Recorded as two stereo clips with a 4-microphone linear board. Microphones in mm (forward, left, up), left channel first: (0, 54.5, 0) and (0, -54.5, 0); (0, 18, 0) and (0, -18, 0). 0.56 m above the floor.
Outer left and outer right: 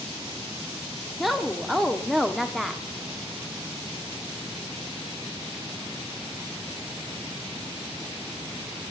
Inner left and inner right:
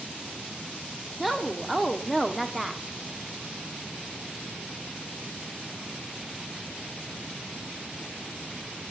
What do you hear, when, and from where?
1.2 s a woman speaking: centre (ahead or behind), 1.1 m